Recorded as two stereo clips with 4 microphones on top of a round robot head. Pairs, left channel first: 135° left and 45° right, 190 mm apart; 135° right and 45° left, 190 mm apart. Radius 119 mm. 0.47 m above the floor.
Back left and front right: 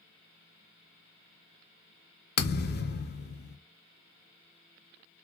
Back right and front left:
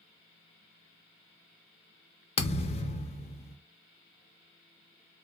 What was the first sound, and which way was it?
A thud, 165° left.